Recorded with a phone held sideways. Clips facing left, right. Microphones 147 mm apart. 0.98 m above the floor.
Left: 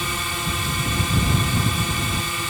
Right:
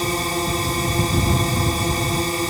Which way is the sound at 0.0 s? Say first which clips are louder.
Right 7 dB; 40° right (ahead or behind).